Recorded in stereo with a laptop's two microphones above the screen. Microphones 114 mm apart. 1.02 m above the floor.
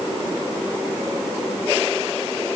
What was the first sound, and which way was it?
Only background noise.